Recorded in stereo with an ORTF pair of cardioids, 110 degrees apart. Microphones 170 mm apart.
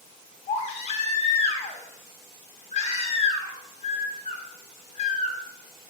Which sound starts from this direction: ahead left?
A baby crying, at 0.5 s.